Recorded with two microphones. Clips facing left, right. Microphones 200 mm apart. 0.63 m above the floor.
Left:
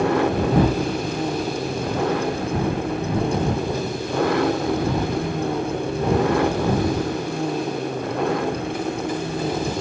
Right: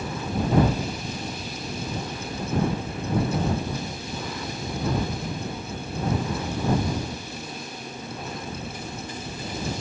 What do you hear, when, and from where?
0.0 s an engine running: 75° left (ahead or behind)